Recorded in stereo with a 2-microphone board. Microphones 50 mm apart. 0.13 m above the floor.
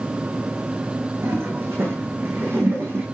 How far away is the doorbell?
No doorbell in this recording.